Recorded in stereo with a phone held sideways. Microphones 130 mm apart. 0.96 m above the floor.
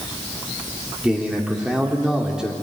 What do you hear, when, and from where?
1.0 s a man speaking: 5° right (ahead or behind), 3 m